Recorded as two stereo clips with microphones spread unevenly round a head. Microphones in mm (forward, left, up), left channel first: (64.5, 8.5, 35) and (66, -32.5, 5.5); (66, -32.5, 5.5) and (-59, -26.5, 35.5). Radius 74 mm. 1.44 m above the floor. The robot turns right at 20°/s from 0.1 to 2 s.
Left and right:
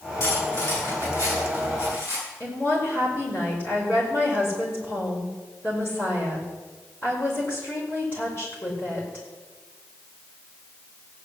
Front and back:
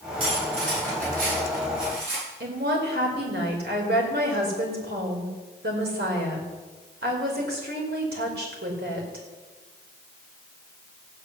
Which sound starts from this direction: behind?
A woman speaking, at 2.4 s.